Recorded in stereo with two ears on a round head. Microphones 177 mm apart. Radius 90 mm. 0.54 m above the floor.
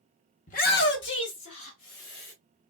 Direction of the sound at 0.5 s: 35° left (ahead or behind).